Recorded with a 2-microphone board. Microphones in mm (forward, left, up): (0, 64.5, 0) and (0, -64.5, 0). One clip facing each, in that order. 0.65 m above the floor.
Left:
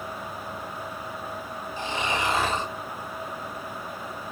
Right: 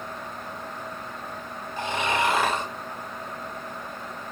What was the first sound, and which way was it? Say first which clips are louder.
Snoring: right 3 dB; 55° right (ahead or behind).